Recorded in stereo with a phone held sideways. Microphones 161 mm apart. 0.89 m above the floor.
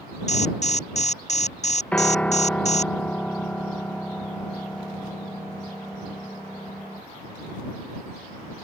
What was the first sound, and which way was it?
An alarm, 45° left (ahead or behind).